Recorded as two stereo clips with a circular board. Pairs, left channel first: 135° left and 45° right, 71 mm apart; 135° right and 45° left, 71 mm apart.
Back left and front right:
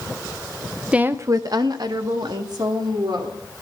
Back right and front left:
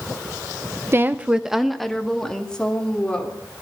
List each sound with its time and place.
0.9 s a woman speaking: 20° left, 0.7 m; by 3.4 s 60° right, 3.5 m